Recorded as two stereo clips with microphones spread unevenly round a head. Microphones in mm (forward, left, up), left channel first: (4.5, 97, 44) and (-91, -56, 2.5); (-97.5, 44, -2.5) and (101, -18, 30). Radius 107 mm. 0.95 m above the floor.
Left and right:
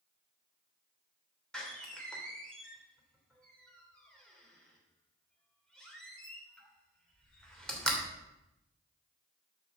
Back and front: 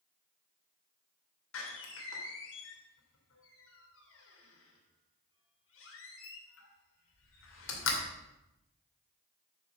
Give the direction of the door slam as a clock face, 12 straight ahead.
7 o'clock.